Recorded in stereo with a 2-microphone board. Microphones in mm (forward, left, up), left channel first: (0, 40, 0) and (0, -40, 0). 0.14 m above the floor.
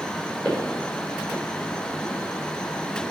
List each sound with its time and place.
0.5 s footsteps: 20° left (ahead or behind), 5.5 m